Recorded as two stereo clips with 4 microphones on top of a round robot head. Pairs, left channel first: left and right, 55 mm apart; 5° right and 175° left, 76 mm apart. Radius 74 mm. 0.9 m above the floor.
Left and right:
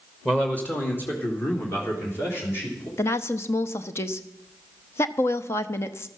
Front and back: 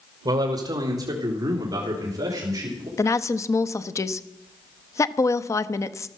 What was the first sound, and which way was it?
A man speaking, 160° left.